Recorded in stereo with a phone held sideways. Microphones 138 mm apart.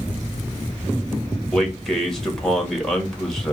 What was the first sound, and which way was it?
A man speaking, 5° left (ahead or behind).